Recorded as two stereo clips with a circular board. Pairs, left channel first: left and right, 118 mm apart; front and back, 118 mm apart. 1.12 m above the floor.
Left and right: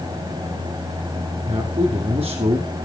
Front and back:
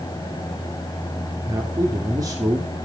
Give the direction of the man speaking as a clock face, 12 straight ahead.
4 o'clock.